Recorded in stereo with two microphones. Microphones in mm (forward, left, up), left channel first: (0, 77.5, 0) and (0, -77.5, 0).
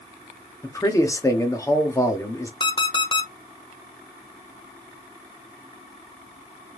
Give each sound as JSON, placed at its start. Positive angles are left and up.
{"t": 0.6, "sound": "a man speaking", "side_deg": 20, "distance_m": 1.1}
{"t": 2.6, "sound": "an alarm clock", "side_deg": 30, "distance_m": 0.9}